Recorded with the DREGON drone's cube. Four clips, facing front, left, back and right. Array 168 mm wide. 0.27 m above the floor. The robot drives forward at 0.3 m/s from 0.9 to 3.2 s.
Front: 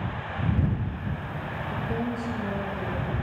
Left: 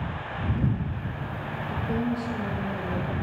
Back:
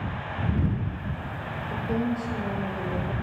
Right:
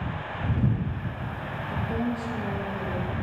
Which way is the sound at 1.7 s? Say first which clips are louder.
Left 1 dB, back 3 dB; 145° left.